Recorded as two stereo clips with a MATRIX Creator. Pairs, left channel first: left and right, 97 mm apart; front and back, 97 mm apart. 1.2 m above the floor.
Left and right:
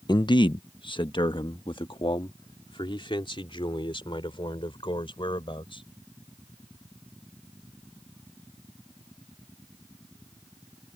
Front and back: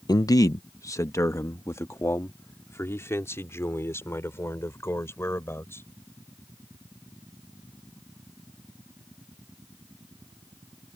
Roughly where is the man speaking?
Ahead left.